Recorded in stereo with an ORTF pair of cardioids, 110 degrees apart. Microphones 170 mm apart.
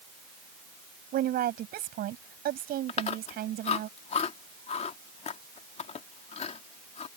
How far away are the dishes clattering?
No dishes clattering in this recording.